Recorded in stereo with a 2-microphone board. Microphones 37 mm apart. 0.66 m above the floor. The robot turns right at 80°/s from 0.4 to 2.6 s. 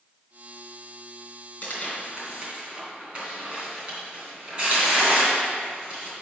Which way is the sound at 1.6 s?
45° left (ahead or behind).